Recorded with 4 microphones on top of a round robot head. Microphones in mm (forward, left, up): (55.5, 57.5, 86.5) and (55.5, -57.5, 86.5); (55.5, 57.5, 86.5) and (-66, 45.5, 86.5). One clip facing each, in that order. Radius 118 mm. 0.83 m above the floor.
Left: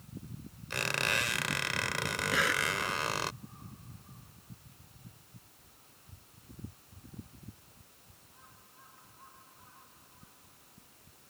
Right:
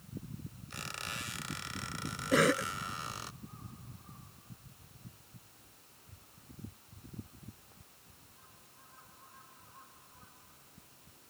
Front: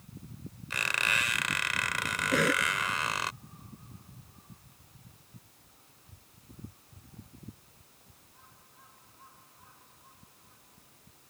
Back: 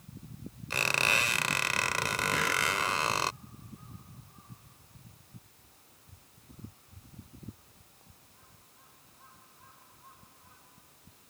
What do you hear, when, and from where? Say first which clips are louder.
0.7 s a squeak: left 11 dB, back 2 dB; 130° left
2.3 s a cough: right 6 dB, front 8 dB; 45° right